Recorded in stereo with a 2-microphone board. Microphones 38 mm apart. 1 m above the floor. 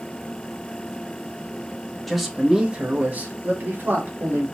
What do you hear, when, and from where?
2.1 s a man speaking: centre (ahead or behind), 1.0 m; by 4.5 s 75° right (ahead or behind), 1.7 m